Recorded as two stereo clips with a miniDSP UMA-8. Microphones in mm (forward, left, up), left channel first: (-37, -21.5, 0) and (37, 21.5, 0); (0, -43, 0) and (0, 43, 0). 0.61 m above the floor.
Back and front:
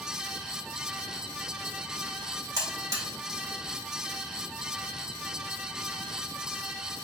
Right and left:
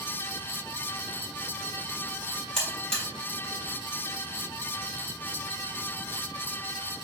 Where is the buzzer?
5° right, 1.6 m.